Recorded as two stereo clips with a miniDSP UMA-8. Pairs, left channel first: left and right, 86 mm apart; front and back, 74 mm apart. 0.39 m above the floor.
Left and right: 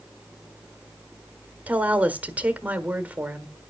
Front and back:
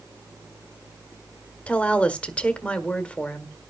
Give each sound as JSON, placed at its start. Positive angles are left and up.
{"t": 1.7, "sound": "a woman speaking", "azimuth_deg": -50, "distance_m": 1.2}